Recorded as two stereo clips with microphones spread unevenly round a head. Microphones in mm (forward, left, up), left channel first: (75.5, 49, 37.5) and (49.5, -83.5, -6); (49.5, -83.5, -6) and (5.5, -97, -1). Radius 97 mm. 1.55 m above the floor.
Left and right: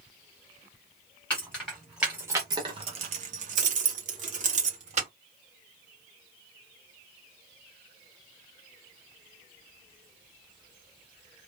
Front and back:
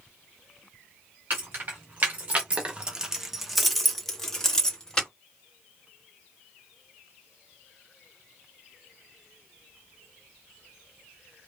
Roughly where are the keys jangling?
Behind left.